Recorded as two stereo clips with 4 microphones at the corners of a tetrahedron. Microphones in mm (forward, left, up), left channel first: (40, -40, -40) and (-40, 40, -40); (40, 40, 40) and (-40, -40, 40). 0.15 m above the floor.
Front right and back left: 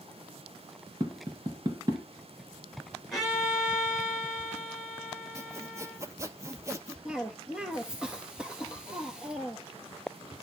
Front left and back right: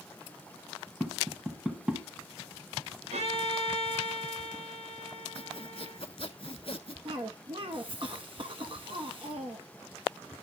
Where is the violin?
135° right, 8 m.